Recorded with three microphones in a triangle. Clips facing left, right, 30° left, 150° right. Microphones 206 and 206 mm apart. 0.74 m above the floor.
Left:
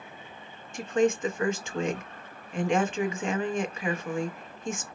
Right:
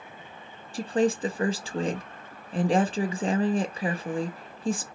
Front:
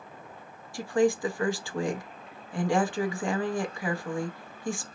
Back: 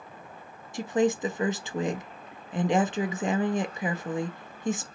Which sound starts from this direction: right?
A woman speaking, at 0.7 s.